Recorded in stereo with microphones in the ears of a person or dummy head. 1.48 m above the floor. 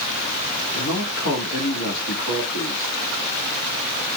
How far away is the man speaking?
About 3.5 m.